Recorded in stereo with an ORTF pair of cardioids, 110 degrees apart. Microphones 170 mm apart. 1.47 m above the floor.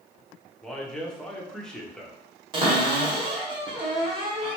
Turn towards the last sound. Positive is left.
turn(degrees=-25)